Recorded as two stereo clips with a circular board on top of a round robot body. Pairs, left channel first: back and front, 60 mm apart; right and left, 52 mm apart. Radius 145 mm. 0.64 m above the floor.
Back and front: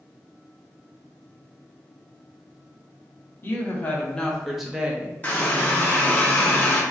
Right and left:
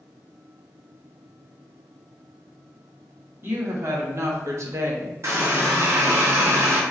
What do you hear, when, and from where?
3.4 s a woman speaking: 125° left, 1.3 m; by 5.1 s 55° left, 0.9 m
5.2 s a running tap: 115° left, 0.9 m